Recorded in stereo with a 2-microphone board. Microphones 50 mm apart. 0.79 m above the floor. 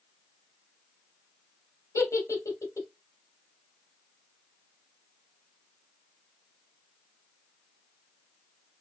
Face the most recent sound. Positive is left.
turn(degrees=80)